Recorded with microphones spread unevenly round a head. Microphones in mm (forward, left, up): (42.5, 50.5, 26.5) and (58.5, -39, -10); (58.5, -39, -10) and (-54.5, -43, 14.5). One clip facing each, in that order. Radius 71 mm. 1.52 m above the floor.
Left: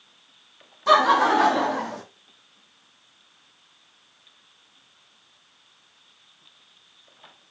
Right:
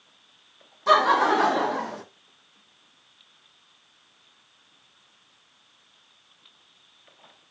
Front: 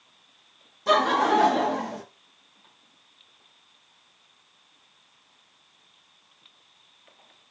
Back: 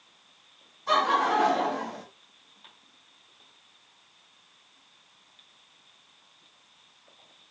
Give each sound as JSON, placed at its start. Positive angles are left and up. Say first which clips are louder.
{"t": 0.9, "sound": "laughter", "louder": "left 2 dB, front 3 dB", "azimuth_deg": 10, "distance_m": 0.8}